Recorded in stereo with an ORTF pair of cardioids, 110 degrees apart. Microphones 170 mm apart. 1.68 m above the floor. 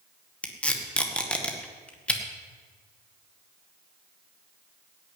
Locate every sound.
0.4 s tape being pulled: 5° left, 1.8 m